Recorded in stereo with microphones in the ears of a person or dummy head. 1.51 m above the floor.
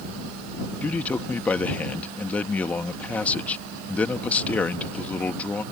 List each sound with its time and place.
0.8 s a man speaking: 15° left (ahead or behind)